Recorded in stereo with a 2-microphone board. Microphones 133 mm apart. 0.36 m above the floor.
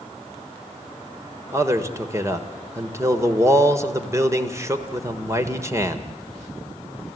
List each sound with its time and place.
1.5 s a man speaking: 20° right (ahead or behind), 1.4 m